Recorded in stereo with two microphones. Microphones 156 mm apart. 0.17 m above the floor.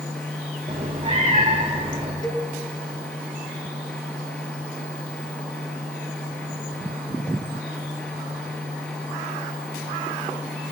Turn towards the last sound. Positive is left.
turn(degrees=25)  # may be behind; listen again after turning